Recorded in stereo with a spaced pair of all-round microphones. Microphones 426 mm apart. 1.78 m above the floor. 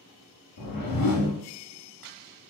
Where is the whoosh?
50° left (ahead or behind), 0.6 m.